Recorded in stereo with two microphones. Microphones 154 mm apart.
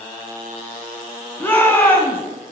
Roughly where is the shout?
Centre.